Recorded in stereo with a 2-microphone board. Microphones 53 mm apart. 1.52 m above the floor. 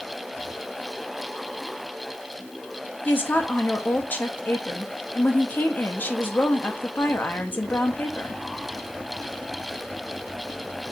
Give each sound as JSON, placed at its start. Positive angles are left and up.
{"t": 3.0, "sound": "a woman speaking", "side_deg": 35, "distance_m": 0.8}